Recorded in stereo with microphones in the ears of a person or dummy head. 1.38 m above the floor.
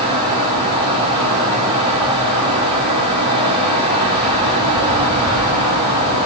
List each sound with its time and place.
0.0 s a fan: 35° right (ahead or behind), 6.5 m